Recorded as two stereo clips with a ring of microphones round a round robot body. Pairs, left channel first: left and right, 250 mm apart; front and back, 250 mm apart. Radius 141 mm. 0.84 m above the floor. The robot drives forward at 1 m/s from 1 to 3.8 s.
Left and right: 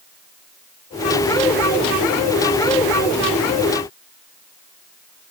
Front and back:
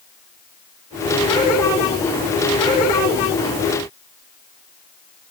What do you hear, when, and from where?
Only background noise.